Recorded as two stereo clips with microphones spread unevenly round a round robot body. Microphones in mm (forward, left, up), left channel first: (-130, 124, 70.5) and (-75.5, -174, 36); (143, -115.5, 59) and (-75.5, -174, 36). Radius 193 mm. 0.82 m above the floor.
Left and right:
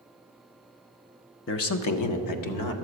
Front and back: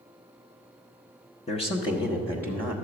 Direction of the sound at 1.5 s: 70° left.